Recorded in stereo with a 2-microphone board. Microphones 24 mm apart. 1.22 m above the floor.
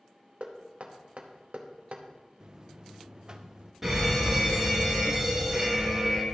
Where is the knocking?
60° right (ahead or behind), 0.9 m.